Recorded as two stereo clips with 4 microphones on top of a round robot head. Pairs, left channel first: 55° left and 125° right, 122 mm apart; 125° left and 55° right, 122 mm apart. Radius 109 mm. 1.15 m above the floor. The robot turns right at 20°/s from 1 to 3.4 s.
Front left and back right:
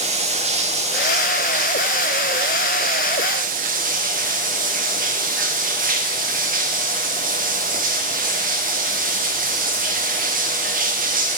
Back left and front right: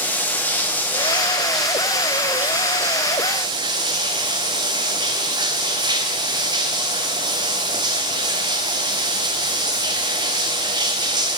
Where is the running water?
160° right, 0.8 m; by 11.4 s 110° right, 0.8 m.